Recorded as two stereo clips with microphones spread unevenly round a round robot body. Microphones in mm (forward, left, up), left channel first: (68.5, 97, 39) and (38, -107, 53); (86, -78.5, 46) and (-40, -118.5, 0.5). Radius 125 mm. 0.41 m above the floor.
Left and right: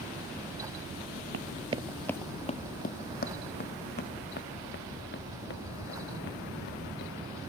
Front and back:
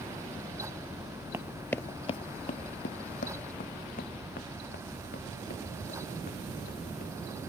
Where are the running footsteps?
80° right; by 7.4 s 50° left.